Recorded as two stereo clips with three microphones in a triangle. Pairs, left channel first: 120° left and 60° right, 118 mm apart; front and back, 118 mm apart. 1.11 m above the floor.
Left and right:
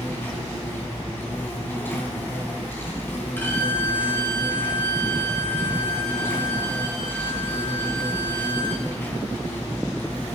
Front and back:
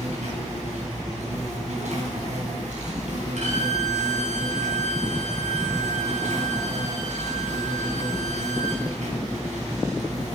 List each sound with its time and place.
0.0 s an insect: 165° right, 4.5 m
3.4 s a violin: 165° right, 6 m